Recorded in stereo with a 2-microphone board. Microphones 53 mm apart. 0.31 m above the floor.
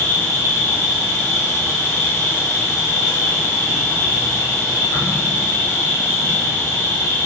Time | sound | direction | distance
0.0 | an insect | 80° left | 1.5 m